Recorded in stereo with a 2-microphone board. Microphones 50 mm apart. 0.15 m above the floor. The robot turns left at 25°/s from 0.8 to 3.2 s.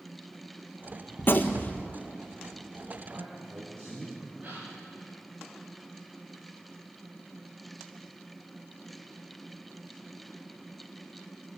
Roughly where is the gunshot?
Left.